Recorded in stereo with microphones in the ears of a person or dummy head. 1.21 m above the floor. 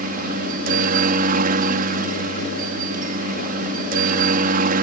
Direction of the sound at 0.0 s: 45° right (ahead or behind).